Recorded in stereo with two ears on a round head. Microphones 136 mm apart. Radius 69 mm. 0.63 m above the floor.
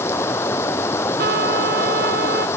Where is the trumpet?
70° right (ahead or behind).